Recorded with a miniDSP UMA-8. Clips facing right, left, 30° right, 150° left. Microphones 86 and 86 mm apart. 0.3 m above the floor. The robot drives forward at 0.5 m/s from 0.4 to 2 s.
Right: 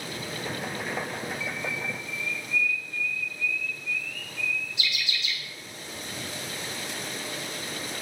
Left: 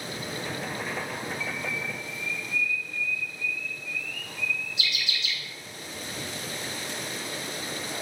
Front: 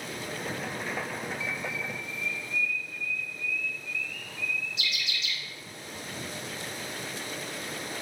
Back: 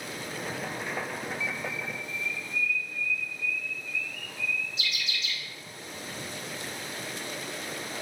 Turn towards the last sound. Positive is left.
turn(degrees=-155)